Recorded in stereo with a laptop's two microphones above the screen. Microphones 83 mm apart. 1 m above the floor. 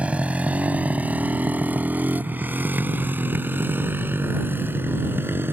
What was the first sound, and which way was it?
A motorcycle, 15° right (ahead or behind).